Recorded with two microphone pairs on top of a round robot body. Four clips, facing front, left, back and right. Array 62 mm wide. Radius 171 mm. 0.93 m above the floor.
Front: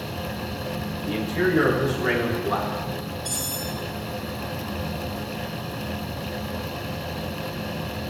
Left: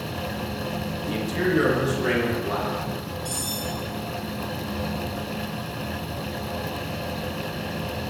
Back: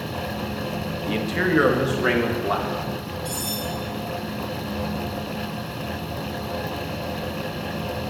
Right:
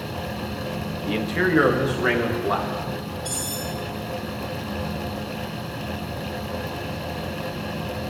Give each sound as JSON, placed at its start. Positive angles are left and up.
{"t": 1.1, "sound": "a man speaking", "azimuth_deg": -115, "distance_m": 1.6}
{"t": 3.2, "sound": "cutlery clinking", "azimuth_deg": -90, "distance_m": 6.5}